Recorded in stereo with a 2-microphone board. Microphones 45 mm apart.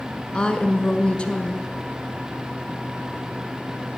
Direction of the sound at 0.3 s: 20° left (ahead or behind).